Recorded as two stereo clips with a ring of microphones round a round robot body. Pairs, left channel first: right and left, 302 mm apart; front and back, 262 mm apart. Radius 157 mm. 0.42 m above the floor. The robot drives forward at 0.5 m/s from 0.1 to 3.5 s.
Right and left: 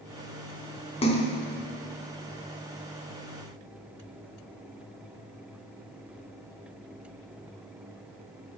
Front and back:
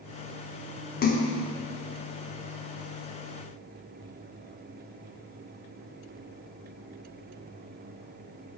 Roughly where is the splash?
Ahead right.